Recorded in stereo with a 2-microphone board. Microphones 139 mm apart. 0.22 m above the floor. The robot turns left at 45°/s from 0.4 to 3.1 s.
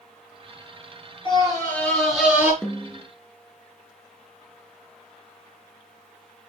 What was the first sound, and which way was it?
A scream, 35° left.